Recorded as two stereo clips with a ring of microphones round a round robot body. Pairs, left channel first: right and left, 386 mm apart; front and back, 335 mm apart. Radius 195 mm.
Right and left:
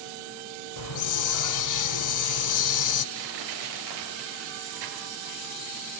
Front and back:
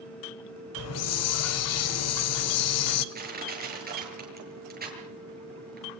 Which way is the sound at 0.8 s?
50° right.